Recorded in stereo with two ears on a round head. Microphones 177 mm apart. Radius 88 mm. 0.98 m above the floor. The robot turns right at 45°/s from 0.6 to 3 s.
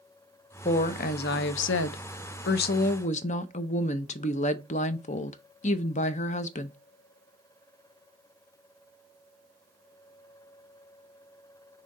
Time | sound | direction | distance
0.7 | a woman speaking | 35° left | 0.5 m